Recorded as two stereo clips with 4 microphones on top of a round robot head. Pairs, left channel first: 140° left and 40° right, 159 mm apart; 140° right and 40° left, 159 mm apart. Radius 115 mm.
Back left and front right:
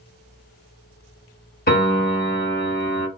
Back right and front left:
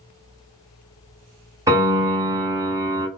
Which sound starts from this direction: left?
A piano, at 1.7 s.